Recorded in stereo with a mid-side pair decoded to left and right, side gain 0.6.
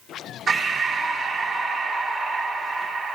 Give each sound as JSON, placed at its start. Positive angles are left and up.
{"t": 0.5, "sound": "breathing", "azimuth_deg": -40, "distance_m": 4.0}